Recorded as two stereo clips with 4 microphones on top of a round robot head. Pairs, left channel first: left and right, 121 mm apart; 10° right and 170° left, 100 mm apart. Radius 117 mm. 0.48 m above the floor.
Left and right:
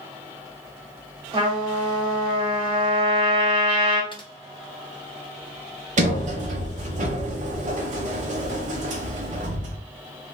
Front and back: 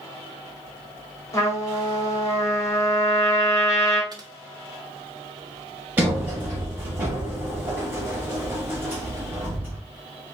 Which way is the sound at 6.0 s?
115° right.